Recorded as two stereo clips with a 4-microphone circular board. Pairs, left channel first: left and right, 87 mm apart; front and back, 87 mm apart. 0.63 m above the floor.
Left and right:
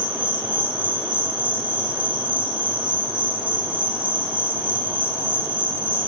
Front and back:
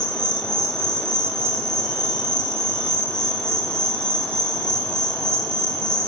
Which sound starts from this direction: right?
An insect, at 0.0 s.